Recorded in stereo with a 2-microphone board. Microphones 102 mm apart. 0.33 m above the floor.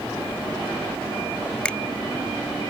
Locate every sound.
1.6 s a finger snap: 10° left (ahead or behind)